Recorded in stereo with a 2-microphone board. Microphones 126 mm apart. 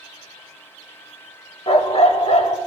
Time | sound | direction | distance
1.7 | a dog barking | 50° left (ahead or behind) | 0.8 m